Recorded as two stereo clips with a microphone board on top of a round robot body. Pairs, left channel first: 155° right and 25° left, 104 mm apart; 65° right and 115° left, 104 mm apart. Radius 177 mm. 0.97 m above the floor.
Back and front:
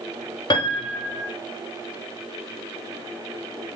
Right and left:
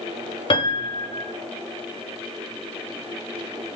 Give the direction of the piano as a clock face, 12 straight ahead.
4 o'clock.